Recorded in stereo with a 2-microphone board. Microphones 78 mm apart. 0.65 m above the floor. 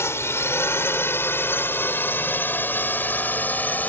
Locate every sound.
0.0 s a drone: 35° left (ahead or behind); by 3.9 s 25° left (ahead or behind)